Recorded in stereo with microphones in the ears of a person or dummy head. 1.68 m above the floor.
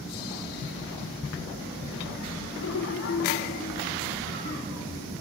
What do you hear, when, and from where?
2.6 s laughter: 70° left (ahead or behind), 1.3 m; by 5.1 s 10° left (ahead or behind), 3.5 m